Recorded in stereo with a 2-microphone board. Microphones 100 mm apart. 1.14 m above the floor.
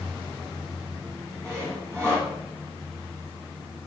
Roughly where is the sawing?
Right.